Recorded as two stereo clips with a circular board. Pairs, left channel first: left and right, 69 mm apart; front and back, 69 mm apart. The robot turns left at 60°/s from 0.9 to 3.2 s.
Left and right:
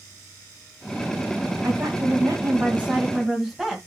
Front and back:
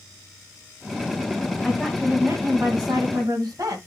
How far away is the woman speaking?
About 2 m.